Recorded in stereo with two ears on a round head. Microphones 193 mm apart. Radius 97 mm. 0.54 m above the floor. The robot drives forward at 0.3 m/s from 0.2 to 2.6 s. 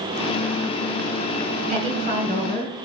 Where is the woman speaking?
35° right (ahead or behind), 3 m; by 2.7 s 30° right (ahead or behind), 3 m.